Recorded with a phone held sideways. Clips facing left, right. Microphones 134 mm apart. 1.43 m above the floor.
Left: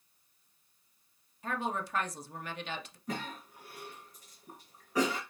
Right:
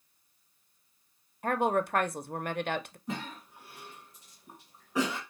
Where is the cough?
5° right (ahead or behind), 2.5 m.